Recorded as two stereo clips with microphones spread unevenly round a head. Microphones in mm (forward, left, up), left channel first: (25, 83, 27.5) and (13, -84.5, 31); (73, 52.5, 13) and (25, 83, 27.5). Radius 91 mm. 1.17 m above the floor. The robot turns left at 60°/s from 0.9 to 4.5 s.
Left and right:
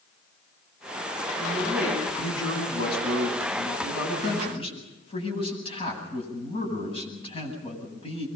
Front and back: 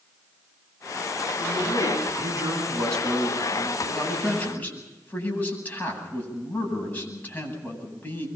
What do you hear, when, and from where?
1.4 s a man speaking: 145° right, 9 m; by 8.3 s 30° left, 9 m